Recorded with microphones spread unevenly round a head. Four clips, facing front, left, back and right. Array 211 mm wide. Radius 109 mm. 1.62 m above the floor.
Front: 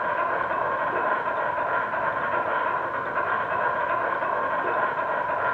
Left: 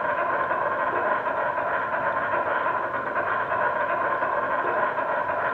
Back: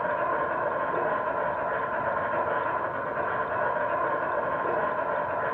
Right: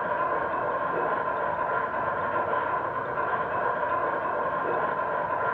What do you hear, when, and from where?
0.0 s an insect: 65° left, 1.7 m